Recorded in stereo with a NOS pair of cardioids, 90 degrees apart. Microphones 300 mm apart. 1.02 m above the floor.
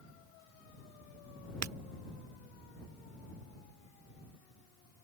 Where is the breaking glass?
60° right.